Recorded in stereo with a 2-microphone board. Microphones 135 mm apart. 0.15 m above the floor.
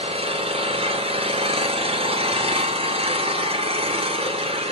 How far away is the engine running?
About 0.7 m.